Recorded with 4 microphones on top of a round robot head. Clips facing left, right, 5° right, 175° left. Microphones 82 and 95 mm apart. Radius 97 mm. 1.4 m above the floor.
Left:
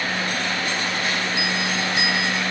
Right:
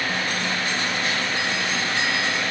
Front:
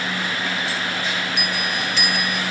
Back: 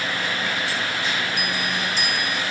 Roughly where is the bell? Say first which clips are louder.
Left 1 dB, front 1 dB; ahead.